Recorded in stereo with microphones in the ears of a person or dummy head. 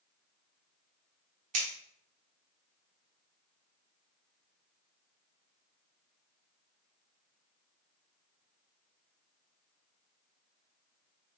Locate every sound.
1.5 s scissors: 40° right (ahead or behind), 1.0 m